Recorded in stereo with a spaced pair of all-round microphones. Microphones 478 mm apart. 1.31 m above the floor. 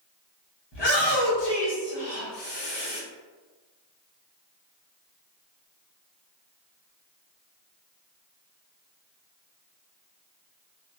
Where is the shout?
60° left (ahead or behind), 1.0 m.